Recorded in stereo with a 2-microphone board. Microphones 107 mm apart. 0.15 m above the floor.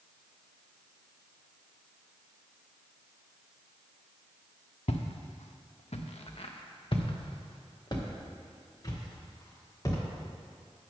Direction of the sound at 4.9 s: 70° left (ahead or behind).